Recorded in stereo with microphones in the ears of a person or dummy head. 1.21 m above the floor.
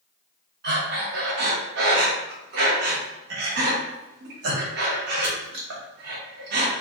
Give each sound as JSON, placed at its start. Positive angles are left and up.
{"t": 0.6, "sound": "breathing", "side_deg": -55, "distance_m": 0.7}